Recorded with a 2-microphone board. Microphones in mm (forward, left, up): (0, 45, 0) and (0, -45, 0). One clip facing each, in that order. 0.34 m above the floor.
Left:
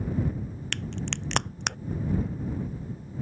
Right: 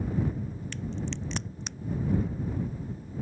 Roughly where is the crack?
Left.